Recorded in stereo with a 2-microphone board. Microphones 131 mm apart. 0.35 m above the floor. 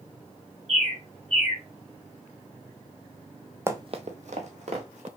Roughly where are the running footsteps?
Centre.